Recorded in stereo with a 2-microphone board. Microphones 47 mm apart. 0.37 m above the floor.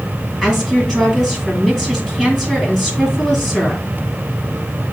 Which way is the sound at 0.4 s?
10° left (ahead or behind).